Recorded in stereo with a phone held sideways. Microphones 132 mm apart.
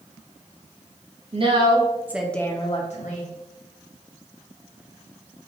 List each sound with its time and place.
1.3 s a woman speaking: 45° right (ahead or behind), 1.4 m; by 3.3 s 75° left (ahead or behind), 1.1 m